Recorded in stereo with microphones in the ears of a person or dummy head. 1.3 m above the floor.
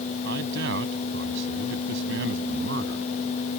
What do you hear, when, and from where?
0.2 s a man speaking: 65° right (ahead or behind)